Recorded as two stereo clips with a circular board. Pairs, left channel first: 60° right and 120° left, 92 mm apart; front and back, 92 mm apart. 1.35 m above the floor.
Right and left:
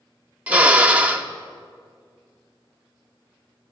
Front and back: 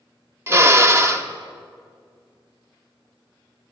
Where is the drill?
175° left, 0.9 m.